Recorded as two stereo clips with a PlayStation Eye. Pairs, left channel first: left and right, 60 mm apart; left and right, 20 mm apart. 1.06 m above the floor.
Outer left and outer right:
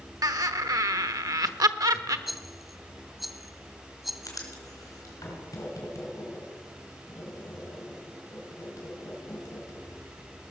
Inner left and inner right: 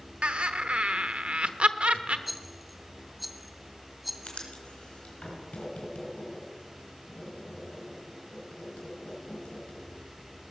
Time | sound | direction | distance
0.2 | laughter | 85° right | 0.9 m
2.3 | a rattle | 5° right (ahead or behind) | 0.6 m
4.2 | writing | 70° left (ahead or behind) | 3 m